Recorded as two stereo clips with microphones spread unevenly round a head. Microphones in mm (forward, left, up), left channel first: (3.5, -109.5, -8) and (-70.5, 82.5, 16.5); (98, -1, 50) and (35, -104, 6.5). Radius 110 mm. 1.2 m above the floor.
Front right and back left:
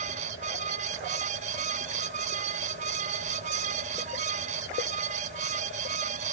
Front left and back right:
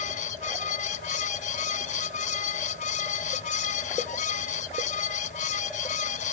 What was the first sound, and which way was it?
A fan, 50° left.